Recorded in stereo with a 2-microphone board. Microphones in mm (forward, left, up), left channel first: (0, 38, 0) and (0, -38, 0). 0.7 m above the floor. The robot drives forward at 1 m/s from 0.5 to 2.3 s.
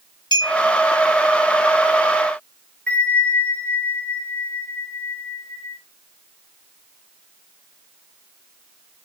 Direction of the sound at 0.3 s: 90° left.